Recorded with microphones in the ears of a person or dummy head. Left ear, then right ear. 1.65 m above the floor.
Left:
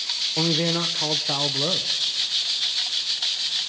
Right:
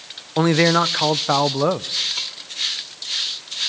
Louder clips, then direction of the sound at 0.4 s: Right 9 dB; 60° right (ahead or behind).